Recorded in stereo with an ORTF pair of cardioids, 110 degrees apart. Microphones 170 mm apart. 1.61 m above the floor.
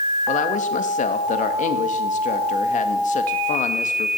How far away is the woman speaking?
About 2 m.